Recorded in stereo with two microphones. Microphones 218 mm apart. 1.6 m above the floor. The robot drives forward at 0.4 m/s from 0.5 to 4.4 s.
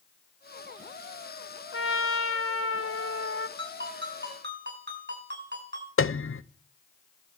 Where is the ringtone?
55° right (ahead or behind), 7.5 m; by 5.9 s 50° right (ahead or behind), 8 m.